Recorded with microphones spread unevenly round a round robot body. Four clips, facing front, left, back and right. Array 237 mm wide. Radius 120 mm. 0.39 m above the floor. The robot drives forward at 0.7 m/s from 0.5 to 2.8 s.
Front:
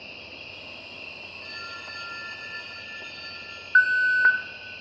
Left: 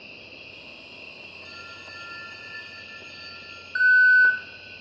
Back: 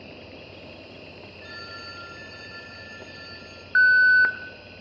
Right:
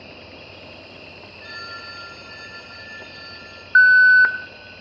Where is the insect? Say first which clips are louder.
Right 6 dB, back 3 dB; 35° right, 7.5 m; by 4.8 s 45° right, 6.5 m.